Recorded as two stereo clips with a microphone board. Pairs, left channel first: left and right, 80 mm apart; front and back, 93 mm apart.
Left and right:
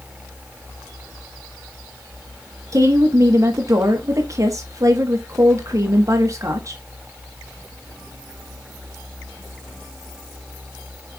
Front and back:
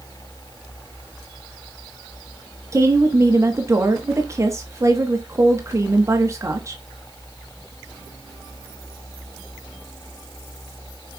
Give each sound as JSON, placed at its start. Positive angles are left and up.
{"t": 2.7, "sound": "a woman speaking", "azimuth_deg": -130, "distance_m": 1.3}